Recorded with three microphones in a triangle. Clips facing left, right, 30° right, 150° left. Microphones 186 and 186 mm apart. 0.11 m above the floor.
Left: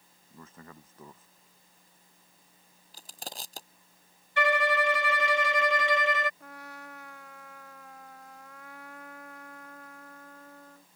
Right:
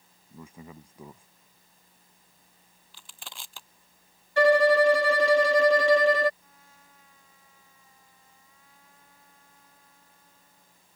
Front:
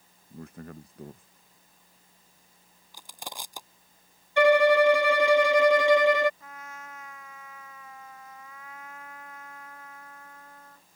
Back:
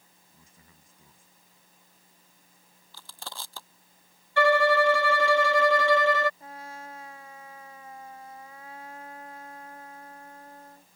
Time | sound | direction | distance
0.3 | a man speaking | 10° right | ?
2.9 | crushing | 45° left | ?
4.4 | a violin | 95° right | ?
6.4 | a trumpet | 95° left | ?